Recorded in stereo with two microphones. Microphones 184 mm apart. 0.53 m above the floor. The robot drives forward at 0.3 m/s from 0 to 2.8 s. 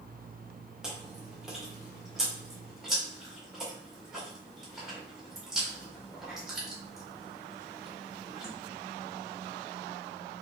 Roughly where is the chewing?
Centre.